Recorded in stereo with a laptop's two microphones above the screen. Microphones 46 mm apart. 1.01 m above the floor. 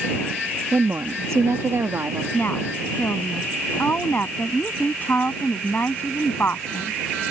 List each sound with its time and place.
0.7 s a woman speaking: 60° right (ahead or behind); by 2.2 s 55° right (ahead or behind)
2.3 s a woman speaking: 45° left (ahead or behind)